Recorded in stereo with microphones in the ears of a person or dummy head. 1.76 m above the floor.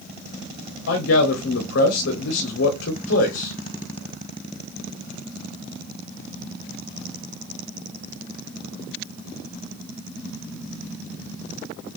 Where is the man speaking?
65° left (ahead or behind), 1.1 m.